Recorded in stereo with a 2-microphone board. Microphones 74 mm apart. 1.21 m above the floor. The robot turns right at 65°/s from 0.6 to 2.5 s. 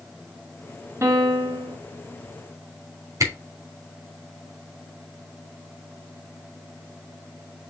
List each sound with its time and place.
1.0 s a piano: 145° right, 1.8 m; by 1.8 s 95° right, 1.8 m
3.2 s a camera shutter: 45° right (ahead or behind), 3 m